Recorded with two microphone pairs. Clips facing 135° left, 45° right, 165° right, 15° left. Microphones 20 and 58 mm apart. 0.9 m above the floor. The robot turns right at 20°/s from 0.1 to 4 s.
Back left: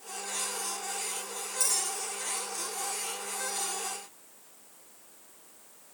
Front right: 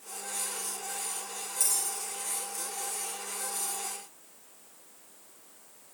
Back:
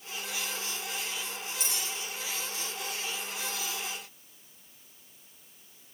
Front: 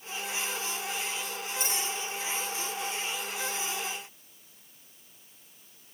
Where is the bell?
60° left, 5 m; by 3.7 s 100° left, 5 m.